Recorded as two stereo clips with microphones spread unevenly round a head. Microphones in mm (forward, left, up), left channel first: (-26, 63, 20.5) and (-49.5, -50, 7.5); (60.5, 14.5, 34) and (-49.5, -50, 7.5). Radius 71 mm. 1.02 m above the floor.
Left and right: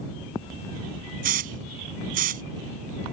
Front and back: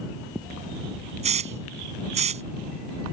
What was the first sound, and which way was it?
A hiss, 105° right.